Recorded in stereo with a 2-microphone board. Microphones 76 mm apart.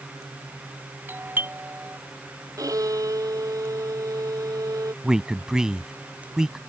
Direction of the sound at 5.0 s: 10° right (ahead or behind).